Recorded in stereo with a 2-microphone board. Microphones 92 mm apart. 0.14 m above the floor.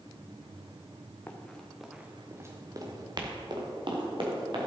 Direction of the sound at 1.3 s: 20° left (ahead or behind).